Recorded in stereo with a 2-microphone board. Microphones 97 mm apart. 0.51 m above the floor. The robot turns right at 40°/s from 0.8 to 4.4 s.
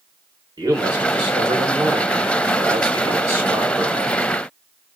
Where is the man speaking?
130° right, 1.7 m; by 4.2 s 5° left, 1.7 m.